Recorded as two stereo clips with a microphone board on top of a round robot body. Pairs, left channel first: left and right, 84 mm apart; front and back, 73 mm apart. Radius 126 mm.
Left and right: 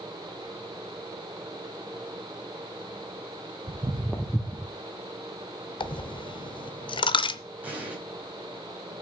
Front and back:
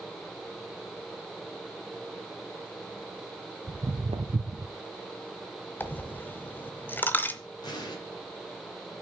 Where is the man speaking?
No man speaking in this recording.